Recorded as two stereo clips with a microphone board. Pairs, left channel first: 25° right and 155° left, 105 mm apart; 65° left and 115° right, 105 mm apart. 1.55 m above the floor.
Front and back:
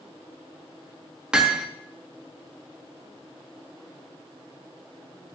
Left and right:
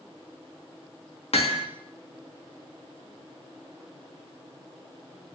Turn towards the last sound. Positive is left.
turn(degrees=75)